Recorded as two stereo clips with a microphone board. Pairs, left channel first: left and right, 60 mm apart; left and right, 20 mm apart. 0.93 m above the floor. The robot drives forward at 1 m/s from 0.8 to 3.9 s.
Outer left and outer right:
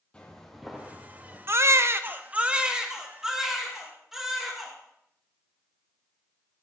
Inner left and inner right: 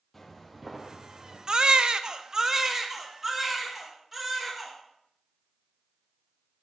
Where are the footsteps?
15° left (ahead or behind), 1.9 m; by 1.4 s 20° right (ahead or behind), 2.5 m.